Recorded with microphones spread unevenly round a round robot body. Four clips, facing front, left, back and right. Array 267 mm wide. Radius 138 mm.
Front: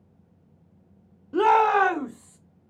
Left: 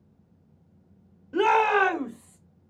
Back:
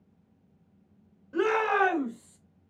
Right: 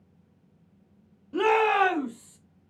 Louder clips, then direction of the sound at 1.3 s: Left 1 dB, front 7 dB; 10° left.